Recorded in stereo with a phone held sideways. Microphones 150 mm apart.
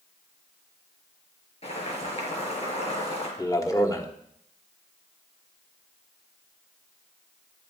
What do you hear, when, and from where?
1.6 s boiling: 45° left (ahead or behind), 5 m
3.4 s a man speaking: 25° left (ahead or behind), 1.5 m